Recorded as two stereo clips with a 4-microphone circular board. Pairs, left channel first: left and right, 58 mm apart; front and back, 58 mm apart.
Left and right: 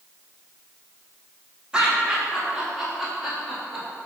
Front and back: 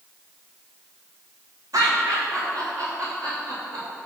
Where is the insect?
I don't hear an insect.